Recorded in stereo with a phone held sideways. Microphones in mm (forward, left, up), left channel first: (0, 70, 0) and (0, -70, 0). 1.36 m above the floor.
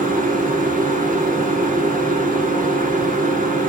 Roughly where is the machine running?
Right.